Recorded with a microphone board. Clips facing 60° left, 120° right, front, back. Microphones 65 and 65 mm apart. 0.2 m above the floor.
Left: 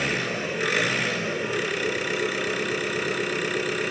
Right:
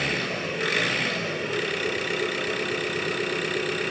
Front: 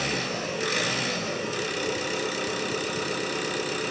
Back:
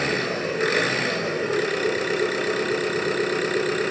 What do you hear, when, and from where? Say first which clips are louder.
0.0 s an engine running: left 1 dB, back 5 dB; 145° left, 2.0 m